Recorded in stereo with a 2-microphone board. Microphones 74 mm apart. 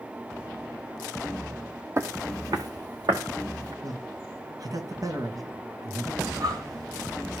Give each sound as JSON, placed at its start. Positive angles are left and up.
{"t": 2.0, "sound": "footsteps", "side_deg": -40, "distance_m": 1.0}
{"t": 3.8, "sound": "a man speaking", "side_deg": -55, "distance_m": 3.0}
{"t": 6.2, "sound": "breathing", "side_deg": -55, "distance_m": 4.0}